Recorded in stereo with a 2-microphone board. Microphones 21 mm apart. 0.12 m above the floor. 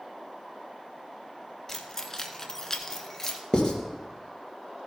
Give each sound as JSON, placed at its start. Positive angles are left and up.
{"t": 1.7, "sound": "keys jangling", "side_deg": 15, "distance_m": 1.2}
{"t": 3.5, "sound": "writing", "side_deg": 35, "distance_m": 2.5}